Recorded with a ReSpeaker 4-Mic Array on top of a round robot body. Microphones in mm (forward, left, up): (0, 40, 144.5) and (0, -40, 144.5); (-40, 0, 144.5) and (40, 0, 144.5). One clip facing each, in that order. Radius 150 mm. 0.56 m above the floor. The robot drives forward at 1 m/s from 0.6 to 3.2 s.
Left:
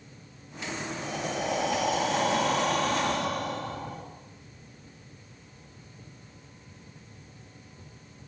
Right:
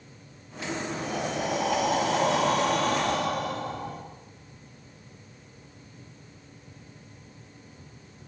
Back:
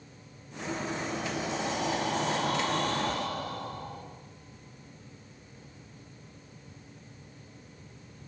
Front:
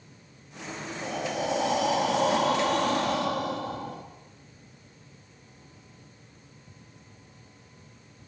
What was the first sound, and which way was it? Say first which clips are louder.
Breathing: right 1 dB, front 3 dB; straight ahead.